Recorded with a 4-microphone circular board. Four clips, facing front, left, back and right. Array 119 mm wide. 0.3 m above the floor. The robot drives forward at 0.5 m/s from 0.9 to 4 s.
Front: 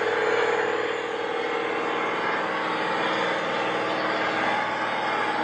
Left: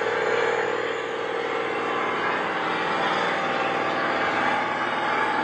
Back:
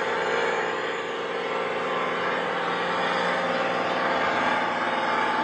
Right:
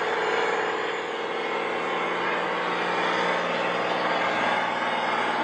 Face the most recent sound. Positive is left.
turn(degrees=120)